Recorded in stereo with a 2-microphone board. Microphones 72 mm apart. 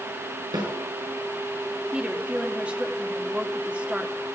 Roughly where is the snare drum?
Right.